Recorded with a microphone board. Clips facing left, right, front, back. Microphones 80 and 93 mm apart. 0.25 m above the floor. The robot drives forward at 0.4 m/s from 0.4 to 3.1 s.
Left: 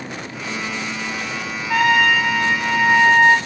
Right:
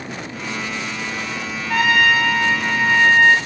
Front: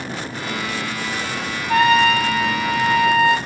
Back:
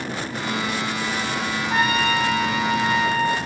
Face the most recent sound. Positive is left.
turn(degrees=0)